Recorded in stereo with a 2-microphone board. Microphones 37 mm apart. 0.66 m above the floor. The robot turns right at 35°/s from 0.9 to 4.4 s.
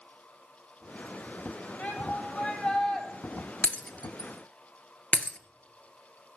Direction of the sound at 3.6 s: 45° left (ahead or behind).